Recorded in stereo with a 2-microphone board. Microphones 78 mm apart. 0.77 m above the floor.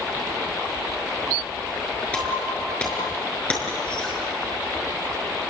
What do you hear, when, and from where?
2.1 s breaking glass: 15° left (ahead or behind), 6 m